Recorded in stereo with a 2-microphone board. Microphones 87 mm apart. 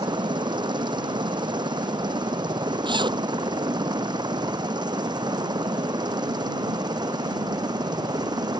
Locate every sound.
0.0 s a helicopter: 60° right (ahead or behind); by 8.6 s 55° right (ahead or behind)
2.9 s a zipper: 65° right (ahead or behind)